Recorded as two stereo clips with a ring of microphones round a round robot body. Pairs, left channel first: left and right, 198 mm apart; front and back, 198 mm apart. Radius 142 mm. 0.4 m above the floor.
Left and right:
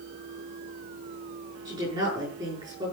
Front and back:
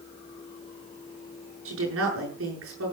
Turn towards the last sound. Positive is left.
turn(degrees=-165)